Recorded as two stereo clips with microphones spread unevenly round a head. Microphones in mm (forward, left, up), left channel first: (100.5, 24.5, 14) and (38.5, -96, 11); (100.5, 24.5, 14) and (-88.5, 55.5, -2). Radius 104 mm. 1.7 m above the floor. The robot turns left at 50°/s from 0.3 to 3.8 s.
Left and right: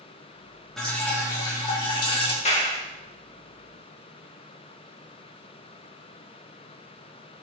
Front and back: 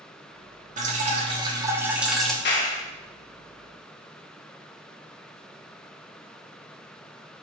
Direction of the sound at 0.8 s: 145° left.